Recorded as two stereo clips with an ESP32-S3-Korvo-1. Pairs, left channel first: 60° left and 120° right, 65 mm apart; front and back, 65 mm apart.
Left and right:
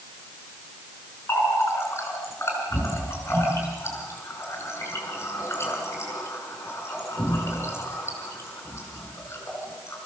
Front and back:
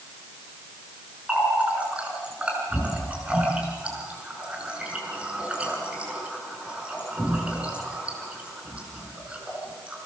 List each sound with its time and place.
1.3 s a running tap: 110° left, 6.5 m